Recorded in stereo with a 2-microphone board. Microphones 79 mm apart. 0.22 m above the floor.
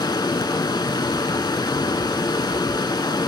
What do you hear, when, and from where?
0.0 s running water: 75° left (ahead or behind), 0.8 m